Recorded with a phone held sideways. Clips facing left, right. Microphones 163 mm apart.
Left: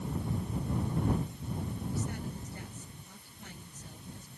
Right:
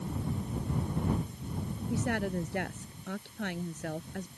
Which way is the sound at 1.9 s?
80° right.